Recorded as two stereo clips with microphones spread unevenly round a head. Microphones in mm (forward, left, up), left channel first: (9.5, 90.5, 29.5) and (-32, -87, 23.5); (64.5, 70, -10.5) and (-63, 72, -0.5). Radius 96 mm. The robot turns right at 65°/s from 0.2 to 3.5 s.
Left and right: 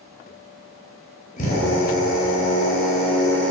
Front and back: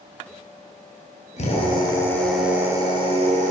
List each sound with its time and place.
1.4 s a drill: 25° left, 5.5 m; by 3.5 s 165° left, 5.5 m